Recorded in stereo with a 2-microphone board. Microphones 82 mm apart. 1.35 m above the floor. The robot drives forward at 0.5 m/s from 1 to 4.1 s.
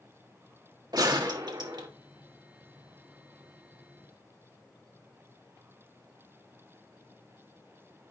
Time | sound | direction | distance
0.9 | a gunshot | 70° right (ahead or behind) | 1.5 m